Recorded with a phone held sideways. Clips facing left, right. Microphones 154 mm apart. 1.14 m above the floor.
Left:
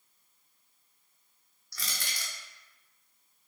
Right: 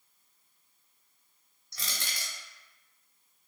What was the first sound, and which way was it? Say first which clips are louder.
Crushing: right 1 dB; 25° right (ahead or behind).